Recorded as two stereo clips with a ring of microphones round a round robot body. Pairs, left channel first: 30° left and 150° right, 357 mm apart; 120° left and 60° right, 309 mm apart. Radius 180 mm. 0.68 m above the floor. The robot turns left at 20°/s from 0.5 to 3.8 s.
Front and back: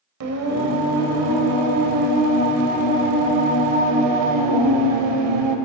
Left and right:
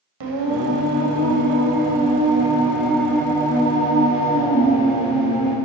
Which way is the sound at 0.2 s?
100° right.